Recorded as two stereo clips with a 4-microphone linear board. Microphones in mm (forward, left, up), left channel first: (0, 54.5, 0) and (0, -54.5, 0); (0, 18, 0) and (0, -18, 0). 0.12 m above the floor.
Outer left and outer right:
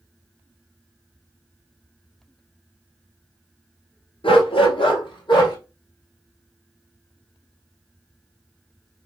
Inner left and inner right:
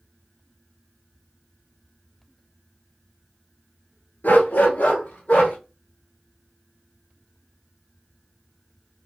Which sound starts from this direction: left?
A dog barking, at 4.2 s.